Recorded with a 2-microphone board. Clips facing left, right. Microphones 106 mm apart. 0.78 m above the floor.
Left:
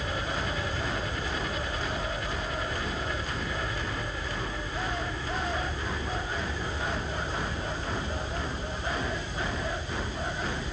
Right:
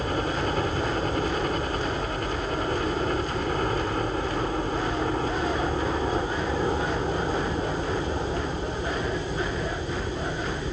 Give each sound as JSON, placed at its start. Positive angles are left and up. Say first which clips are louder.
{"t": 0.0, "sound": "a helicopter", "louder": "right 6 dB", "side_deg": -50}